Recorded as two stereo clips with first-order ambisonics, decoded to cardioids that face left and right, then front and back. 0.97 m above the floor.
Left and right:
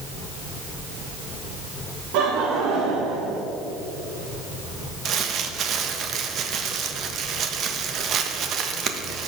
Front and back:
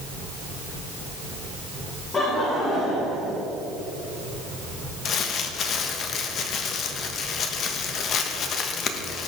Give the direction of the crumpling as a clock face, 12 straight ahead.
2 o'clock.